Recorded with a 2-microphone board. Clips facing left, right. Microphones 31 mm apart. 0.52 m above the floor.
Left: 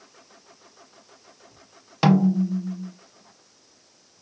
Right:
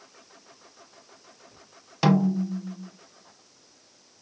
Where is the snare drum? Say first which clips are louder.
Left 3 dB; 15° left (ahead or behind), 0.5 m.